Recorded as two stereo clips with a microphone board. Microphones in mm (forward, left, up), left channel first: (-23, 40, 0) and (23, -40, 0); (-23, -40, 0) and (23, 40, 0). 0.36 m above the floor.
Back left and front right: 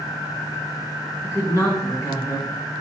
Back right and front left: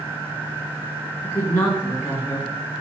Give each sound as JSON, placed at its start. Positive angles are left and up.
{"t": 1.2, "sound": "a woman speaking", "azimuth_deg": 180, "distance_m": 3.5}